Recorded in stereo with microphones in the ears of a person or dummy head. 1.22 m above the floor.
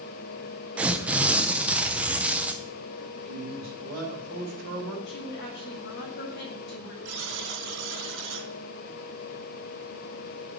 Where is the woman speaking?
65° left (ahead or behind), 2.5 m.